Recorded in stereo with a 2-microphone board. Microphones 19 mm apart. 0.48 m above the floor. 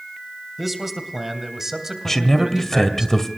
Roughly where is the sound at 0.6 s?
Centre.